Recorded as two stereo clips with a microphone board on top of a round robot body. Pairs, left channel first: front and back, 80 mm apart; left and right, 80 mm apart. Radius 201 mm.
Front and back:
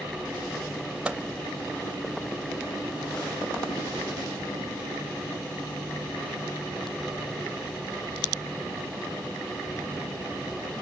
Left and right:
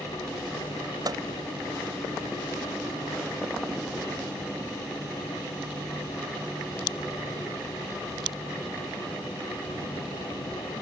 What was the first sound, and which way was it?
A microwave, 105° right.